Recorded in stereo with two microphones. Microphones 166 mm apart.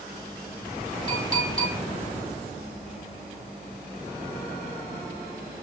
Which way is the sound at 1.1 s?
20° left (ahead or behind).